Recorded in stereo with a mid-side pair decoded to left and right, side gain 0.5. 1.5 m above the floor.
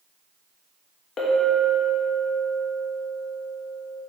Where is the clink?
50° left, 1.5 m.